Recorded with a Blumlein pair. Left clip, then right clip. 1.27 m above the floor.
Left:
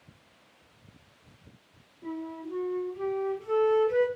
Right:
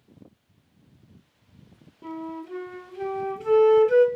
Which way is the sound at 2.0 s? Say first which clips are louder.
Right 2 dB; 50° right.